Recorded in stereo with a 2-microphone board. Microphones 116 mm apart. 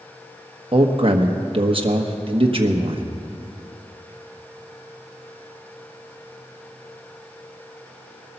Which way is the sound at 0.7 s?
50° right (ahead or behind).